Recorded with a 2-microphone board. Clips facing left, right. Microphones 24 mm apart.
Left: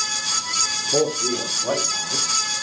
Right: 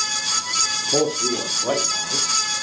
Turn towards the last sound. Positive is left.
turn(degrees=-50)  # may be behind; listen again after turning